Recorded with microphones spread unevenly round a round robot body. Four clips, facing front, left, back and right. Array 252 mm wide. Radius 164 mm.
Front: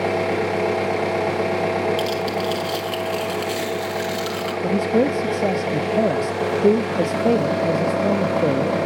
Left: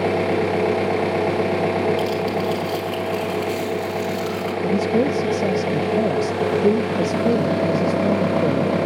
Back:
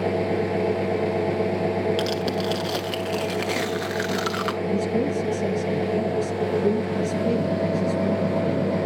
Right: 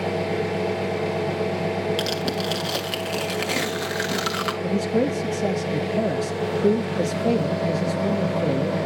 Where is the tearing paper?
120° right, 1.5 m.